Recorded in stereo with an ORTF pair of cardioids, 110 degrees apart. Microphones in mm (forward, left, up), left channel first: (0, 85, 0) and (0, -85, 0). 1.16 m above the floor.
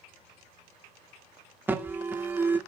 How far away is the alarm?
About 1.8 m.